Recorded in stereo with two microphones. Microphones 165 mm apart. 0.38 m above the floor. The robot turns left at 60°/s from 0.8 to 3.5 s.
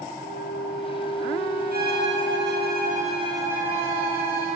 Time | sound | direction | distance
0.2 | a flute | 90° left | 5 m
1.7 | a violin | 60° right | 9.5 m